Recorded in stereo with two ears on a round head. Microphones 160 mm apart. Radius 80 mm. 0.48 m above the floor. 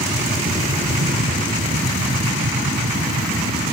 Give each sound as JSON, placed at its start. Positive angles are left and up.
{"t": 0.0, "sound": "an aircraft", "side_deg": -45}